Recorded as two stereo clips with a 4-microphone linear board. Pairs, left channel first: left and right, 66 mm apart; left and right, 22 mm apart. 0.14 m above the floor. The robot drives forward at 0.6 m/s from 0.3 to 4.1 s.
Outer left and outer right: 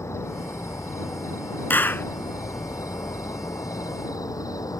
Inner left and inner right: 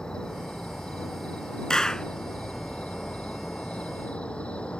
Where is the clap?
30° left (ahead or behind); by 2.1 s 35° left (ahead or behind).